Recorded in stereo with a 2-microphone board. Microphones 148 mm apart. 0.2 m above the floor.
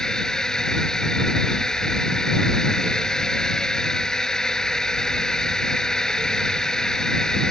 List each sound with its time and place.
0.0 s a drone: 5° left (ahead or behind)